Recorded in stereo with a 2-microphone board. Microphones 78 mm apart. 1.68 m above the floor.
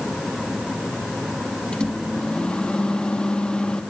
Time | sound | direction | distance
1.7 | a microwave | 15° left (ahead or behind) | 2.0 m